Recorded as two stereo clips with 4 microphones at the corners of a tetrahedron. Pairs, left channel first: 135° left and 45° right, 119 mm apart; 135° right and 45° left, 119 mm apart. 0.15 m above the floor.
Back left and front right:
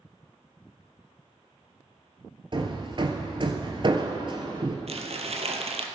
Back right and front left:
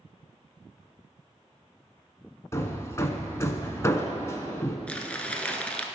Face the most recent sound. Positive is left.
turn(degrees=-55)